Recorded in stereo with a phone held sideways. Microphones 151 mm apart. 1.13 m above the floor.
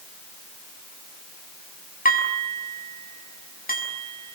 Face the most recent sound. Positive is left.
turn(degrees=80)